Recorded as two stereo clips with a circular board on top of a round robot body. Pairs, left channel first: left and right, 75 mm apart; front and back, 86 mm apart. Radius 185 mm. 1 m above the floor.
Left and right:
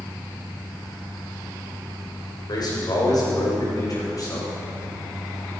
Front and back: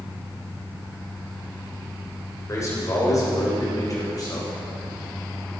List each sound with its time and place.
2.5 s a man speaking: 55° left, 4 m; by 4.5 s 45° left, 5.5 m